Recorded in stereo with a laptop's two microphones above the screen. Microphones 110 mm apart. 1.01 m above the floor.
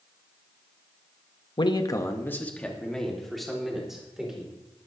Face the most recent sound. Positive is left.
turn(degrees=-5)  # may be behind; listen again after turning